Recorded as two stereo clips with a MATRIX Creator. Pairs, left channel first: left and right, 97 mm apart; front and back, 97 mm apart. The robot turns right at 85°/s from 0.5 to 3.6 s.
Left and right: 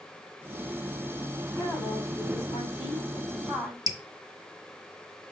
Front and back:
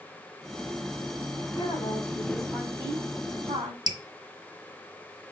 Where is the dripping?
140° right, 0.6 m.